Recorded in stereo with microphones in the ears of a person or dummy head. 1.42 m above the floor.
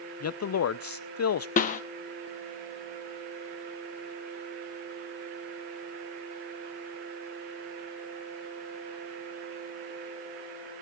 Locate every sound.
0.2 s a man speaking: 80° left, 0.7 m
1.6 s a snare drum: 45° left (ahead or behind), 1.3 m